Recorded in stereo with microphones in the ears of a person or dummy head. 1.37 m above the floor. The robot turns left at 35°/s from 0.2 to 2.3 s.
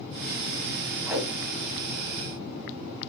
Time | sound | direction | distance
1.1 | a whoosh | 20° right (ahead or behind) | 3 m